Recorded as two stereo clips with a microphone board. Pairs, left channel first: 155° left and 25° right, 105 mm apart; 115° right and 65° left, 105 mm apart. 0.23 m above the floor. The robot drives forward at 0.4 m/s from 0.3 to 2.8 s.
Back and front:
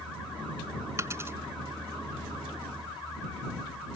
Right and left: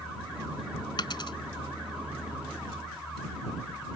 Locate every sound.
1.0 s a dropped coin: 80° right; by 1.4 s 85° right